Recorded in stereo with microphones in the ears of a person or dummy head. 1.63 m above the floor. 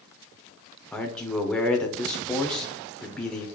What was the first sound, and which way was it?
A man speaking, 5° left (ahead or behind).